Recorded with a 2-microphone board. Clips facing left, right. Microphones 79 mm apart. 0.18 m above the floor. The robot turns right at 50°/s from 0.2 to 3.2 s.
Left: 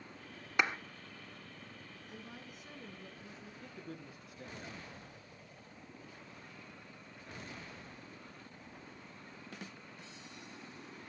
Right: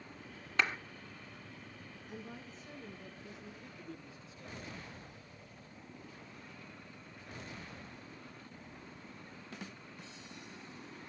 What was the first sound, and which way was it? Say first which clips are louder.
A clap: left 1 dB; 15° left (ahead or behind).